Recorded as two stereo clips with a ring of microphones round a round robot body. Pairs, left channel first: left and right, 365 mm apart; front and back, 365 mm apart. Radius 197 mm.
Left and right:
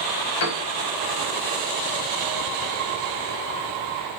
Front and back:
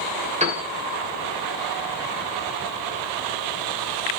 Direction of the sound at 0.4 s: 110° left.